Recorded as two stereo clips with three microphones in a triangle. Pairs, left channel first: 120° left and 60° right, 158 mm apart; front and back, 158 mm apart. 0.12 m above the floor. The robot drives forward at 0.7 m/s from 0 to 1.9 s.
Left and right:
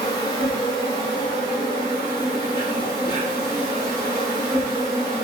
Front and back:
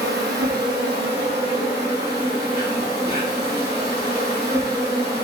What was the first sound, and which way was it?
An insect, 175° right.